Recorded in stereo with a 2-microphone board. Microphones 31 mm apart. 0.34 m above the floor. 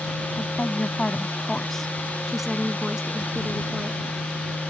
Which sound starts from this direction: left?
A woman speaking, at 0.3 s.